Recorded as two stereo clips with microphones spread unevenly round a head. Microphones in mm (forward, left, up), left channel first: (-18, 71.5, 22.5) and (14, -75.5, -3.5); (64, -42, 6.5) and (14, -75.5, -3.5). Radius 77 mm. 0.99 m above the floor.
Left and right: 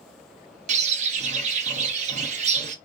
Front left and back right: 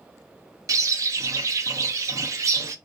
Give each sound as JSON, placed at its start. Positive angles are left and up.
{"t": 0.7, "sound": "a bird", "azimuth_deg": -120, "distance_m": 0.6}